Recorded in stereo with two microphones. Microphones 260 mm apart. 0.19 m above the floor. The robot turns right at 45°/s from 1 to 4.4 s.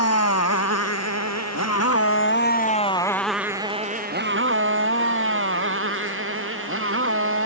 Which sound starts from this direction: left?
A motorcycle, at 0.0 s.